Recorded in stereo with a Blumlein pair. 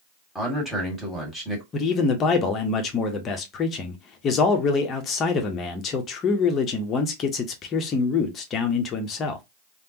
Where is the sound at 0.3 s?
5° right, 1.9 m.